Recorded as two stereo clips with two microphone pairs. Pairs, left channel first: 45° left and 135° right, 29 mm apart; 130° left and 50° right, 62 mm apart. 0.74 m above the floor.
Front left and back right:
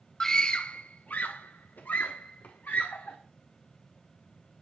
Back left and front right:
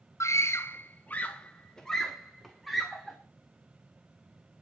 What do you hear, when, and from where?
0.2 s a scream: 125° left, 0.6 m; by 3.2 s 35° left, 1.8 m